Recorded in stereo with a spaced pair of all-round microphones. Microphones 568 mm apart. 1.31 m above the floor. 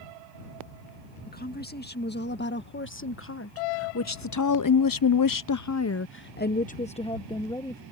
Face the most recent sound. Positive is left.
turn(degrees=5)  # may be behind; listen again after turning